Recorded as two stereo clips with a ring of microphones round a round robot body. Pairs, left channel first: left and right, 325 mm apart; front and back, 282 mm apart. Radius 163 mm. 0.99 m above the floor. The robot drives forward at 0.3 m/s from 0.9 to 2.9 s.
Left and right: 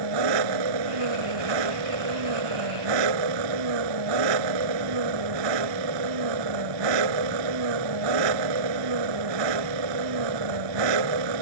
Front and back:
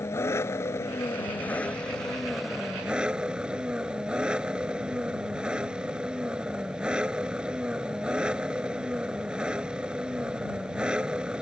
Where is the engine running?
80° right; by 11.4 s 95° right.